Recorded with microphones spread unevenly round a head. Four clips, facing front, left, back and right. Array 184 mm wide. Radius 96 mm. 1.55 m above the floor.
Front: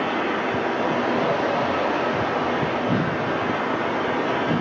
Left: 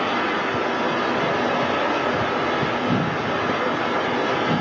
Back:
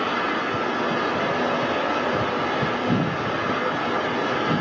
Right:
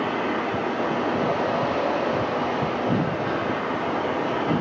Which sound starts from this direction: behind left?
An engine running, at 0.0 s.